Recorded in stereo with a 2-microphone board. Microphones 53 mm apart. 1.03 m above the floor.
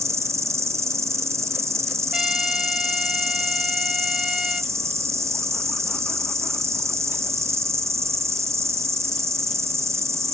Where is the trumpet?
10° right (ahead or behind).